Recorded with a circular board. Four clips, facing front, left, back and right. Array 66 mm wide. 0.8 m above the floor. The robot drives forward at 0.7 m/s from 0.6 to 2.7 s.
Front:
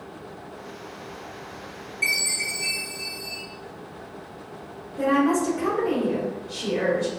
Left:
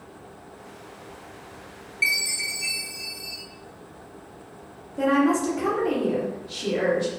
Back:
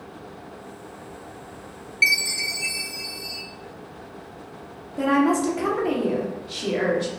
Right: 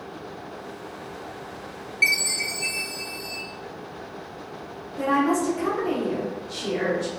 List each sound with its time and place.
2.0 s a chime: 165° right, 0.7 m; by 3.4 s 175° right, 1.1 m
5.0 s a woman speaking: 165° left, 1.3 m